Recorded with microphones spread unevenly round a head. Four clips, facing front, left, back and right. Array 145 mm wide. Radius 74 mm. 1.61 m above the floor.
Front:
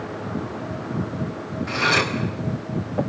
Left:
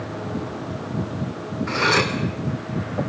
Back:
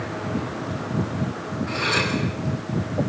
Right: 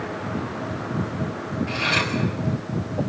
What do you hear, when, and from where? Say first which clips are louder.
1.7 s cutlery clinking: left 8 dB, front 4 dB; 90° left, 3 m